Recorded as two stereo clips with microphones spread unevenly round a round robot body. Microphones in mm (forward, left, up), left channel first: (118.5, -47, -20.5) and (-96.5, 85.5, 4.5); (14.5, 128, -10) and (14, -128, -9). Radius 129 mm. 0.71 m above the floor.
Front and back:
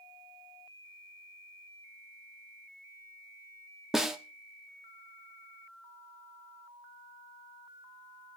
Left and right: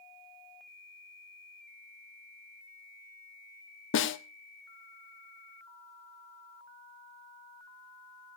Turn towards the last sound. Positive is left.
turn(degrees=55)